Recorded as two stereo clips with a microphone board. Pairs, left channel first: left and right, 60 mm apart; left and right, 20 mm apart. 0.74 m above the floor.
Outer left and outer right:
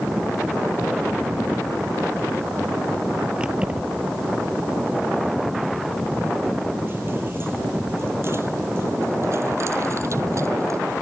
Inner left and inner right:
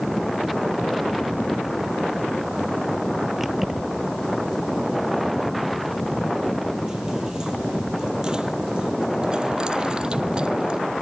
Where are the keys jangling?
15° right (ahead or behind); by 10.8 s 55° right (ahead or behind).